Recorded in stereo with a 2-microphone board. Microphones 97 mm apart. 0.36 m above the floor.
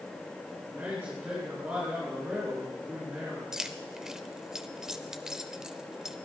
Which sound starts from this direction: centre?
Keys jangling, at 3.5 s.